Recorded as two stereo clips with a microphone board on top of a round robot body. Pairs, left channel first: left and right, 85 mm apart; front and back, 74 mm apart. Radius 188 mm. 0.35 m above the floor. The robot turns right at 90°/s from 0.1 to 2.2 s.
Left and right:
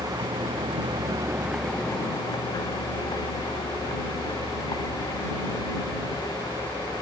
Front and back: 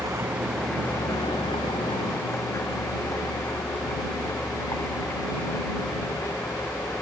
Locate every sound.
0.0 s a vehicle: 130° right; by 7.0 s 50° left